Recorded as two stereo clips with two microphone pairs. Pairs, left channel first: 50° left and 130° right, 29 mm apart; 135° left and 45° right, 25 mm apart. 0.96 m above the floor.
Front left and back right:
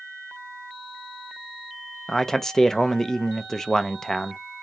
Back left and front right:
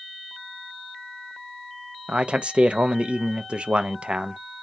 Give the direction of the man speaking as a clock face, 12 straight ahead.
1 o'clock.